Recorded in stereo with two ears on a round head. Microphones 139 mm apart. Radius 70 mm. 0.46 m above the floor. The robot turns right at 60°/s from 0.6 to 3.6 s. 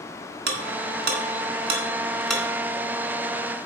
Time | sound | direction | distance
0.5 | ticking | 80° right | 2 m